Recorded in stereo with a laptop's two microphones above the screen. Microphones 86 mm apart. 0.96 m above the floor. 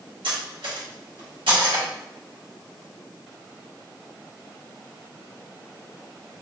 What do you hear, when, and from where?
0.2 s cutlery clinking: 80° right, 1.1 m